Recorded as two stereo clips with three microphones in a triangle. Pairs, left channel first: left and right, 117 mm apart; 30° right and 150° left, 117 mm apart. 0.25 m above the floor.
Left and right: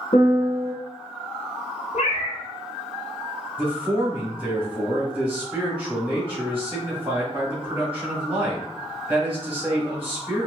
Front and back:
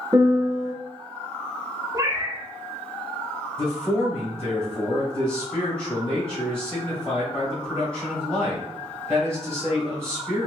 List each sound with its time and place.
0.1 s a piano: 100° left, 1.1 m
1.9 s a cat meowing: 90° left, 0.7 m
3.6 s a man speaking: 155° right, 1.5 m